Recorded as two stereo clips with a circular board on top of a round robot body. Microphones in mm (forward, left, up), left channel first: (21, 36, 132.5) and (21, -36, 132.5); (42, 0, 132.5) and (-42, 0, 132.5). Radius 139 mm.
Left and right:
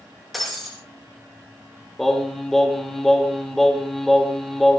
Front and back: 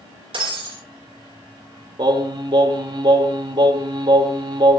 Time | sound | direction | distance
0.3 | breaking glass | straight behind | 6.5 m
2.0 | singing | 175° left | 3 m